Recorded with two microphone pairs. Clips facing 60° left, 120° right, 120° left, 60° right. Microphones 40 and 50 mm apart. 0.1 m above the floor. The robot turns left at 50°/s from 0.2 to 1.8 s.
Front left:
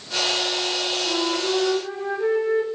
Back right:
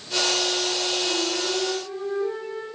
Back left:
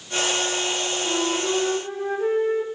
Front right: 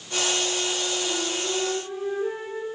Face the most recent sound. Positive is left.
turn(degrees=90)